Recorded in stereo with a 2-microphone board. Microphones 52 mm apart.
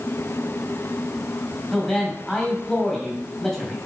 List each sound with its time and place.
1.7 s a man speaking: 10° left (ahead or behind), 3 m